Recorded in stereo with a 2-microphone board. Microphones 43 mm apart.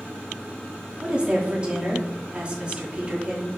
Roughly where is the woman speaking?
Right.